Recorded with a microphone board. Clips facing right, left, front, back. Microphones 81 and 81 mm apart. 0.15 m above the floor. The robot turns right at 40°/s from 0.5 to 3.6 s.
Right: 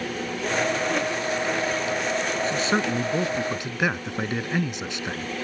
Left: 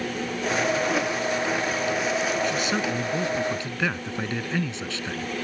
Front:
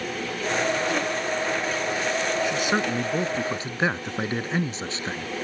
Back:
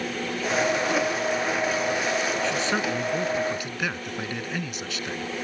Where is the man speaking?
75° right; by 5.3 s 30° right.